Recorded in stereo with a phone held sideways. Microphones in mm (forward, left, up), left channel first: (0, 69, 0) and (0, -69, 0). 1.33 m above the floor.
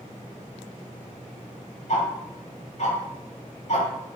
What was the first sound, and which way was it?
Ticking, 55° left (ahead or behind).